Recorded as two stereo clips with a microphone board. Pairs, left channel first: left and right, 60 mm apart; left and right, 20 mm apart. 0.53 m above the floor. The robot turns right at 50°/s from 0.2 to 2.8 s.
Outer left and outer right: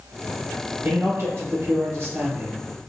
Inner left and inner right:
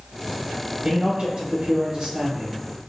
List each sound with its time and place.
0.8 s a man speaking: 140° right, 1.5 m; by 2.6 s 50° right, 1.5 m